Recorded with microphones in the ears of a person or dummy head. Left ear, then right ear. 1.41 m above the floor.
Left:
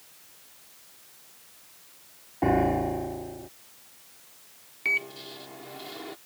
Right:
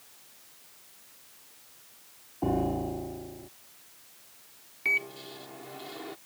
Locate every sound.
2.4 s a piano: 65° left (ahead or behind)
4.8 s a microwave: 5° right (ahead or behind)